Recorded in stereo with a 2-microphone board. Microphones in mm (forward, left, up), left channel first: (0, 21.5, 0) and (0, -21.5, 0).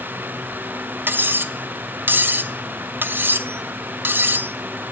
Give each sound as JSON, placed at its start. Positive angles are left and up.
{"t": 1.1, "sound": "cutlery clinking", "side_deg": -55, "distance_m": 0.6}